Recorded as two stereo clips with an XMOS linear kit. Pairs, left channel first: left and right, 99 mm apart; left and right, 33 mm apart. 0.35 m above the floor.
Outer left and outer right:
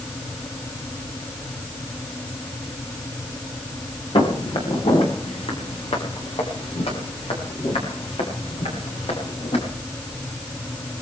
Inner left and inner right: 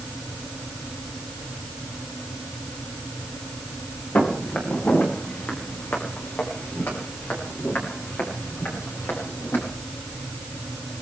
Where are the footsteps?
60° left (ahead or behind), 5.5 m; by 9.6 s 80° left, 9.5 m.